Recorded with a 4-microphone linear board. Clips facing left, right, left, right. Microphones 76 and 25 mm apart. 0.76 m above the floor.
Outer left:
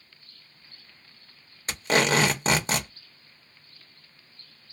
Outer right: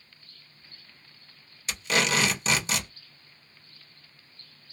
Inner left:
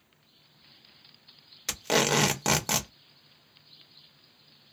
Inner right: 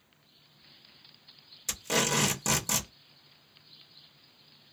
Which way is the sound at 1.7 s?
40° left (ahead or behind).